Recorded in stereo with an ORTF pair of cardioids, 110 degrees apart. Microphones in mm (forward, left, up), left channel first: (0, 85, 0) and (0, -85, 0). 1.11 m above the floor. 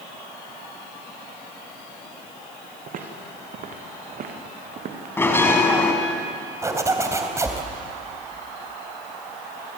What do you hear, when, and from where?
2.9 s footsteps: 55° right, 4.5 m
5.2 s a bell: 15° left, 4 m
6.6 s a zipper: 20° right, 3.5 m